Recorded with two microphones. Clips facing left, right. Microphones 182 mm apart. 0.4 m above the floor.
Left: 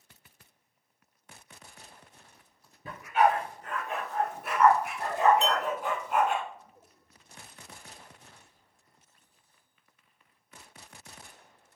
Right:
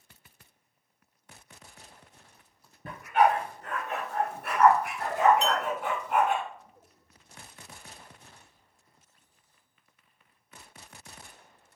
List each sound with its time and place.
2.9 s a dog barking: 55° right (ahead or behind), 1.9 m; by 6.4 s 50° right (ahead or behind), 1.1 m
5.4 s a clink: 20° left (ahead or behind), 1.4 m